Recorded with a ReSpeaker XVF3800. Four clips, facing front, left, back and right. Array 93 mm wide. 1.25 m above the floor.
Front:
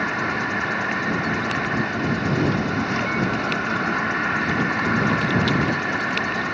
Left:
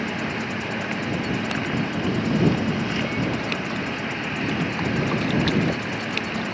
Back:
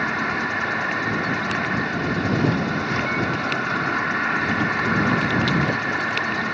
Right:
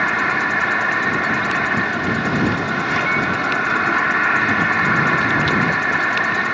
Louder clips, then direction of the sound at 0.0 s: Right 9 dB, even; 85° right.